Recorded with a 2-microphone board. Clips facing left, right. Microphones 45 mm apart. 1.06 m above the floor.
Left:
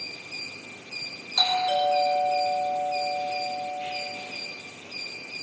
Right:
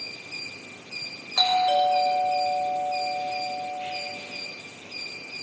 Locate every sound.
1.4 s a doorbell: 30° right (ahead or behind), 7 m